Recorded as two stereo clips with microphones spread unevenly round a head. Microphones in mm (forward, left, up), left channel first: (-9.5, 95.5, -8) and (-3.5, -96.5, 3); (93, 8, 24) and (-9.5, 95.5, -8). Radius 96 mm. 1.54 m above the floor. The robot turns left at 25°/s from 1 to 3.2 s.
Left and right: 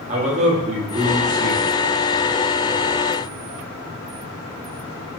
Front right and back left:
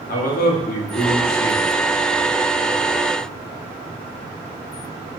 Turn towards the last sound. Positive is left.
turn(degrees=-85)